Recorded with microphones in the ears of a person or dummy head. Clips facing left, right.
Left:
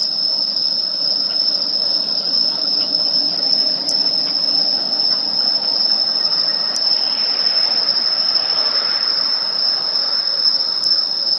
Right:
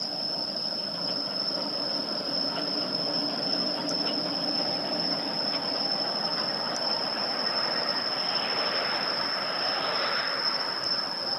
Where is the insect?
75° left (ahead or behind).